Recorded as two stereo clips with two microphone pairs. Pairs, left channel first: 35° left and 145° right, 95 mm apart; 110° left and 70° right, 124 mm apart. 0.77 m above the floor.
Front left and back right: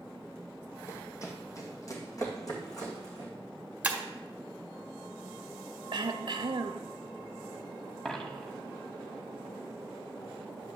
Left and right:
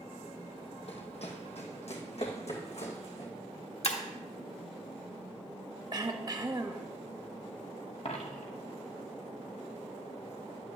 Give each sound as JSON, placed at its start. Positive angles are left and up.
{"t": 0.9, "sound": "running footsteps", "azimuth_deg": 90, "distance_m": 1.6}
{"t": 3.8, "sound": "breaking glass", "azimuth_deg": 140, "distance_m": 1.2}
{"t": 5.9, "sound": "throat clearing", "azimuth_deg": -125, "distance_m": 0.8}
{"t": 8.1, "sound": "a dropped coin", "azimuth_deg": 115, "distance_m": 1.1}